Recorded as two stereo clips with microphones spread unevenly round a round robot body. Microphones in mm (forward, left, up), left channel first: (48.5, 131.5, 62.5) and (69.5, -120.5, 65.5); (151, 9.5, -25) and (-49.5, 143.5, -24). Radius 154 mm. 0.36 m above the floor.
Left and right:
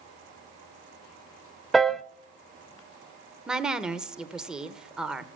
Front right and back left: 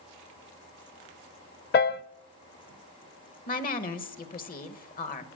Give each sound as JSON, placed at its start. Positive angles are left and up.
{"t": 1.7, "sound": "a piano", "azimuth_deg": 5, "distance_m": 0.6}
{"t": 3.5, "sound": "a woman speaking", "azimuth_deg": 0, "distance_m": 1.1}